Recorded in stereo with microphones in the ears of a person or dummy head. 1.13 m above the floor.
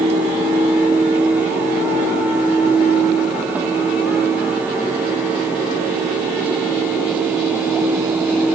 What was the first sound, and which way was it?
Only background noise.